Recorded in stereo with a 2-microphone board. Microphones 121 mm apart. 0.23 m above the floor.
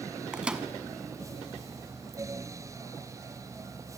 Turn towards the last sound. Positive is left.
turn(degrees=-5)  # may be behind; listen again after turning